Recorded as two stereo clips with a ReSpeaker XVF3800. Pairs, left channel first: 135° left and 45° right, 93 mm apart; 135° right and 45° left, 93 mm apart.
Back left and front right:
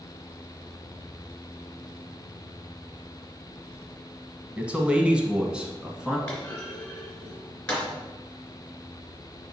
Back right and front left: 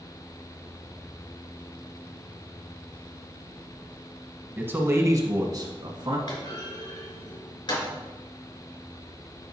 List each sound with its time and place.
4.6 s a man speaking: 10° left, 1.1 m; by 6.2 s 35° left, 1.8 m
6.3 s a clunk: 150° right, 3 m